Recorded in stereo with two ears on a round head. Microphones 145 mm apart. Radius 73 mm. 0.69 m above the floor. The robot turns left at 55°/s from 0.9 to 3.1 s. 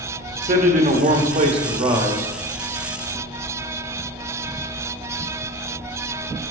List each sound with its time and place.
0.4 s a man speaking: 85° right, 1.2 m; by 2.3 s 165° right, 1.2 m